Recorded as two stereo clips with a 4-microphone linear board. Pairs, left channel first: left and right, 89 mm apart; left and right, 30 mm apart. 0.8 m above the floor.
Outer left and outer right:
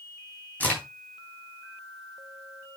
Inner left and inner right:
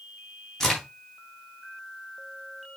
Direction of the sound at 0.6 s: 20° left (ahead or behind).